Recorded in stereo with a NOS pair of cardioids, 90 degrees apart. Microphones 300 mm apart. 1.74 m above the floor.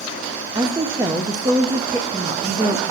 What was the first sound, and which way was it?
A woman speaking, 15° right.